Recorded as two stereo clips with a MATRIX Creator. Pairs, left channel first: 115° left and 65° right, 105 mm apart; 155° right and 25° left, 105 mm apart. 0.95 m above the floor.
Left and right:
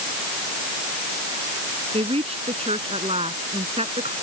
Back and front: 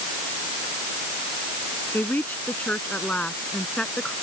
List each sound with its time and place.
1.9 s a woman speaking: 85° right; by 4.1 s 75° right